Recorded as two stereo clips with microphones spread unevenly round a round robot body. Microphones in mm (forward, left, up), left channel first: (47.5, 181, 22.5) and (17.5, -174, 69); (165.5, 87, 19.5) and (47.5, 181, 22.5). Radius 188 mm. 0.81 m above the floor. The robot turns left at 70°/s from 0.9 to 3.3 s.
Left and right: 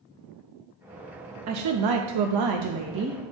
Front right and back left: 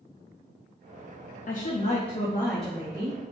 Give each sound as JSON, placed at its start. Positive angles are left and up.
{"t": 1.5, "sound": "a woman speaking", "azimuth_deg": -45, "distance_m": 0.6}